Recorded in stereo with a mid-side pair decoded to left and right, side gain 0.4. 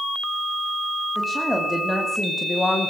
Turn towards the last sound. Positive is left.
turn(degrees=30)